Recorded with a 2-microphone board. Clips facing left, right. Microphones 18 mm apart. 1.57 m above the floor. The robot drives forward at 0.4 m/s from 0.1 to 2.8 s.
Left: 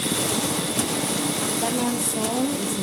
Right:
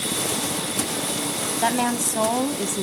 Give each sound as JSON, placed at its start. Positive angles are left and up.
{"t": 1.6, "sound": "a woman speaking", "side_deg": -40, "distance_m": 1.0}